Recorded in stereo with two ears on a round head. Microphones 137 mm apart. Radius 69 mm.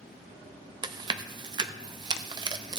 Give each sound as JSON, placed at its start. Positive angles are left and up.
{"t": 0.8, "sound": "chewing", "side_deg": -30, "distance_m": 0.6}